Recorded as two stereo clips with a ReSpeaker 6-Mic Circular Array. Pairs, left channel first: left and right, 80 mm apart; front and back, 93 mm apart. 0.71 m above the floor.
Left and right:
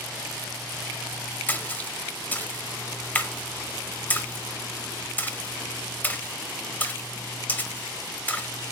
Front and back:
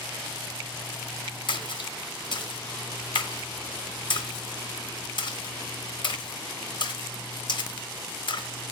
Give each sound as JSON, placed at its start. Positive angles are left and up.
{"t": 1.5, "sound": "a splash", "azimuth_deg": 25, "distance_m": 0.5}